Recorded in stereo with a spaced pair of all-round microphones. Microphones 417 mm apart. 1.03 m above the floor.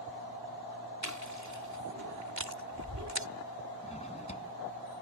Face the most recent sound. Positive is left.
turn(degrees=15)  # may be behind; listen again after turning